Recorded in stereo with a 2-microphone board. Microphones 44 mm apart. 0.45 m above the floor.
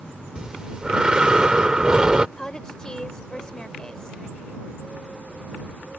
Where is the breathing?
20° right (ahead or behind).